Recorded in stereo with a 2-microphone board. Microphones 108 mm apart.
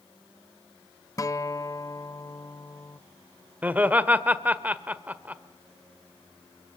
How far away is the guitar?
About 0.7 m.